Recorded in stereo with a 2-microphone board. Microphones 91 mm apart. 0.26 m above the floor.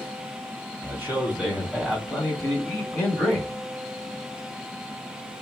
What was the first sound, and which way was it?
A man speaking, 25° right (ahead or behind).